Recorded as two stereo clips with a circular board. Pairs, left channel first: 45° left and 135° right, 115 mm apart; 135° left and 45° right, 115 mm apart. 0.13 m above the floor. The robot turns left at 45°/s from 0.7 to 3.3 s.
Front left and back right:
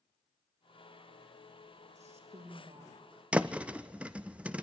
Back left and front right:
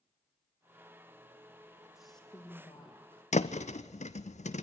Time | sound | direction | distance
1.9 | a woman speaking | 130° right | 5 m
3.3 | a thud | 145° left | 0.7 m